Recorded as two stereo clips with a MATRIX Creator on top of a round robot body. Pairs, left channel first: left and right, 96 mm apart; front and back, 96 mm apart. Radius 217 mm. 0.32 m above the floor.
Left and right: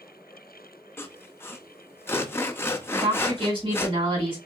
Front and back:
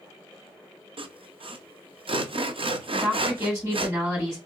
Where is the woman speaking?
120° right, 3.5 m.